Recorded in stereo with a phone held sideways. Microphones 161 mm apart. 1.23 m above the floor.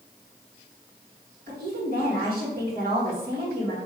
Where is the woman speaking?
65° right (ahead or behind), 1.9 m.